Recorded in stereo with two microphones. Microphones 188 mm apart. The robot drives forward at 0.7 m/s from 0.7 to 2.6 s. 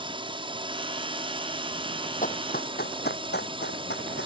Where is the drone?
25° right (ahead or behind).